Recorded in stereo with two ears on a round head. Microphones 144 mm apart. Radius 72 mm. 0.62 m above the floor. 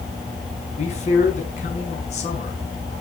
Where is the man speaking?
45° left (ahead or behind), 5.5 m.